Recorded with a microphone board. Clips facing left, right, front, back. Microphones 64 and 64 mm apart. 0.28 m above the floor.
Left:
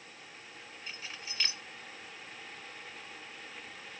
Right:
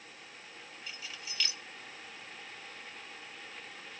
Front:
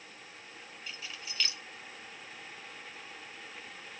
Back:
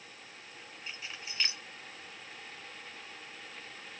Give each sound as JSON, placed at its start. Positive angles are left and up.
{"t": 0.9, "sound": "keys jangling", "azimuth_deg": 130, "distance_m": 1.4}